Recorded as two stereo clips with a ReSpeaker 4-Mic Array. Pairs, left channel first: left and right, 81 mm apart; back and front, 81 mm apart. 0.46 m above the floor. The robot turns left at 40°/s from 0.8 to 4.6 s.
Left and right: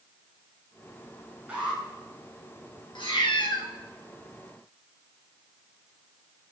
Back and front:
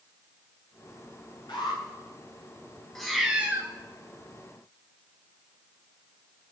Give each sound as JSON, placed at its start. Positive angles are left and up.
{"t": 1.5, "sound": "an alarm", "azimuth_deg": -160, "distance_m": 8.5}
{"t": 3.0, "sound": "a cat meowing", "azimuth_deg": 95, "distance_m": 2.0}